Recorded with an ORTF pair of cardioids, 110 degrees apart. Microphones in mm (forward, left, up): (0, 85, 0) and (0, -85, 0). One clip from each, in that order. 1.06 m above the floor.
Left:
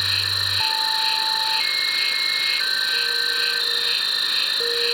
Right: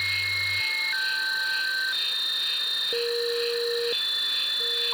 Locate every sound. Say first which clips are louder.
0.0 s an insect: left 4 dB; 55° left